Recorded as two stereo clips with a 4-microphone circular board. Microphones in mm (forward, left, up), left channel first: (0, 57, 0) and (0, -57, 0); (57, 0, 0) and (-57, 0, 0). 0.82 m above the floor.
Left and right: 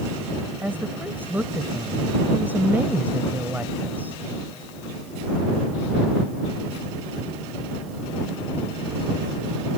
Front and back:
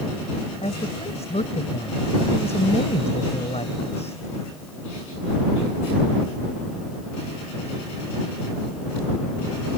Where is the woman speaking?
15° right.